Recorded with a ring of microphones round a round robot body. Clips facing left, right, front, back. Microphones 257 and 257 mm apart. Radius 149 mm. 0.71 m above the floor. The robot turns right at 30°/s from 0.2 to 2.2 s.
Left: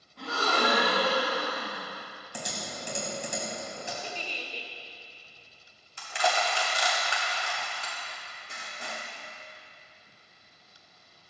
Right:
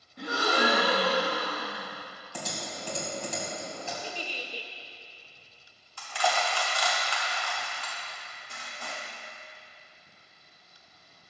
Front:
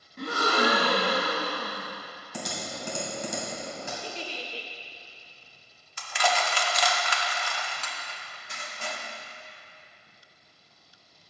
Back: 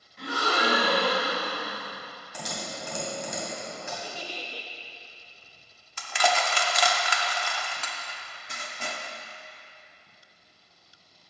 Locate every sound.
0.2 s a gasp: 25° right, 1.2 m; by 1.9 s 25° left, 1.2 m
2.3 s typing on a keyboard: 15° left, 2.5 m
4.0 s a giggle: 25° right, 0.7 m
6.0 s crushing: 160° left, 0.8 m